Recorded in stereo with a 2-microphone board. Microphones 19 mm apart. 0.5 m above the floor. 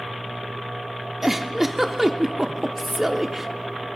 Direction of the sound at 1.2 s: 15° right (ahead or behind).